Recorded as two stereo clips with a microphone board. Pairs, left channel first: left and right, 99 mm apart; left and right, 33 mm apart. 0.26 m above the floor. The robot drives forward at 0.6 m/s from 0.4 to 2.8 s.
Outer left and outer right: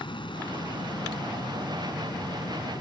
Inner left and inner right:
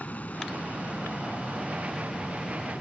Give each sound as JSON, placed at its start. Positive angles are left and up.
{"t": 0.0, "sound": "an aircraft", "side_deg": 60}